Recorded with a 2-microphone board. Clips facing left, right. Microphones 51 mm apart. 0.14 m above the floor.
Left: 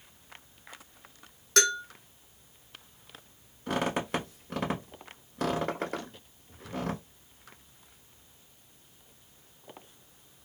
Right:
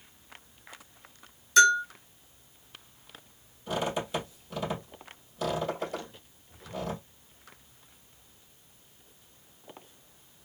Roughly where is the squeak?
Left.